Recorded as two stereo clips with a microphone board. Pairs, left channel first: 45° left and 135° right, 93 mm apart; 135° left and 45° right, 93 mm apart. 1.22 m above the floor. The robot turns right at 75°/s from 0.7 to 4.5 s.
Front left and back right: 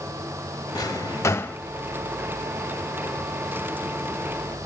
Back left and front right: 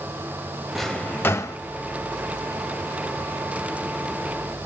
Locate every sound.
0.8 s a drawer: 45° left, 0.6 m; by 1.6 s 105° left, 0.6 m